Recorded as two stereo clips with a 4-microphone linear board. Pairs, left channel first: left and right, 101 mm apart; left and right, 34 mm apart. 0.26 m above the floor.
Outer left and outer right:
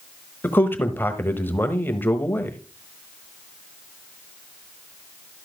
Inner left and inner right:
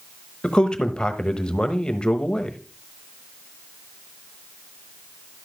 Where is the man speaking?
20° left (ahead or behind), 1.0 m.